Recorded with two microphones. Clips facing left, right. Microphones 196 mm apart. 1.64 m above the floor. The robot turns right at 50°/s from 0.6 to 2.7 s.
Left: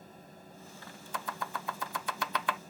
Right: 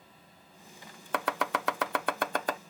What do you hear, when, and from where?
1.1 s chopping: 70° right (ahead or behind); by 2.6 s 35° right (ahead or behind)